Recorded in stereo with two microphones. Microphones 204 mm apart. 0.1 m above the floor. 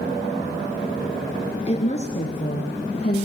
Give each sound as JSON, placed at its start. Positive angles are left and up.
{"t": 1.7, "sound": "a woman speaking", "side_deg": 30, "distance_m": 2.0}